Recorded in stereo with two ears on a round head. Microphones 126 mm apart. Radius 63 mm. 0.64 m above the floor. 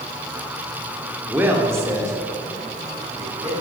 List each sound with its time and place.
1.3 s a man speaking: 10° right (ahead or behind), 1.3 m; by 3.5 s 35° right (ahead or behind), 3.5 m